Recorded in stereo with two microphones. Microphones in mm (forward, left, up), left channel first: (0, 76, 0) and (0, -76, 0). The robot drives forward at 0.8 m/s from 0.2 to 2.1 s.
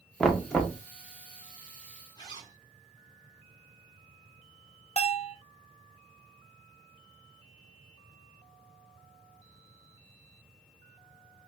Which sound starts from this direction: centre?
Knocking, at 0.2 s.